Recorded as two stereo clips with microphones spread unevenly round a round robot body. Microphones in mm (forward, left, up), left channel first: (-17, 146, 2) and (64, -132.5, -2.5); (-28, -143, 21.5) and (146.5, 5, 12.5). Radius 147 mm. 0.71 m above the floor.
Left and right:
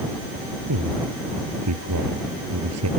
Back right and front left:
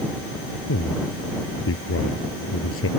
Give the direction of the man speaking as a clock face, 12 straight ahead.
4 o'clock.